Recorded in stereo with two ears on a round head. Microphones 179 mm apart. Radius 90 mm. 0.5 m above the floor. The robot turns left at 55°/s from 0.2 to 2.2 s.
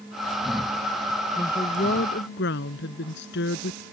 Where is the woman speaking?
165° left; by 3.8 s 120° left.